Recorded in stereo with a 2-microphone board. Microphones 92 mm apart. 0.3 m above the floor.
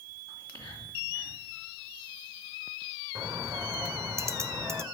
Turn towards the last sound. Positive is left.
turn(degrees=-35)  # may be behind; listen again after turning